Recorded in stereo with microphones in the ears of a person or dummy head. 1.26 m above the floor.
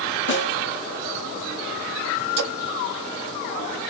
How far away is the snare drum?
About 0.9 m.